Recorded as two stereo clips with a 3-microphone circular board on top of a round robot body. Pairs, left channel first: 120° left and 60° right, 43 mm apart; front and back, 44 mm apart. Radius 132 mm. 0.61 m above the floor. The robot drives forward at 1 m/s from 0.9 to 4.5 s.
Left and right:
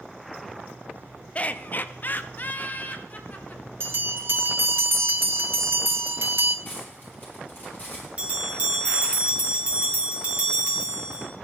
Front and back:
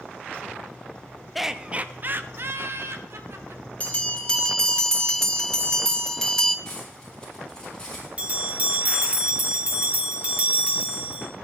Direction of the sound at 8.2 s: 120° right.